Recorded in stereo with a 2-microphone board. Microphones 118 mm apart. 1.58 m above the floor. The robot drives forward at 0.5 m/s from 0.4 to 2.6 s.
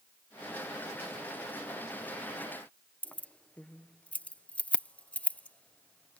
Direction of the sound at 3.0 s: 10° left (ahead or behind).